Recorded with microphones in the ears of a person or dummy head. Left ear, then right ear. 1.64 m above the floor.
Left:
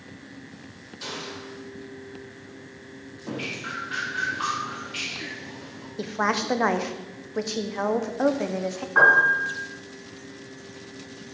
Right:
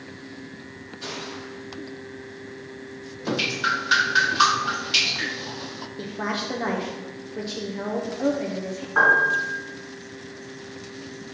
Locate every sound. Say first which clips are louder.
1.0 s a gunshot: right 1 dB; 35° left (ahead or behind), 3 m
3.2 s dripping: right 9 dB; 65° right (ahead or behind), 0.7 m
6.0 s a woman speaking: left 4 dB; 45° left (ahead or behind), 0.8 m
8.9 s a piano: left 1 dB; 15° left (ahead or behind), 4 m